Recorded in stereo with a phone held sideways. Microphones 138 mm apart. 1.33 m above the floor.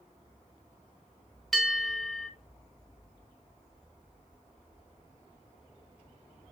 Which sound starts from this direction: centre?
A bell, at 1.5 s.